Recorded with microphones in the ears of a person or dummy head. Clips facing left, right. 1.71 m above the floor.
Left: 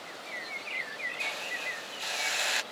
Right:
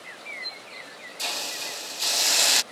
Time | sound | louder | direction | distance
1.2 | a hiss | right 6 dB | 55° right (ahead or behind) | ?